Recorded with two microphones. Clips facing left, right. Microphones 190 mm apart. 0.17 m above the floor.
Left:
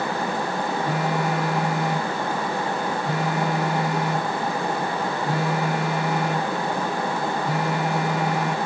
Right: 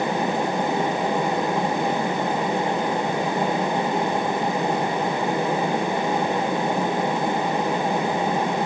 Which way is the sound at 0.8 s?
80° left.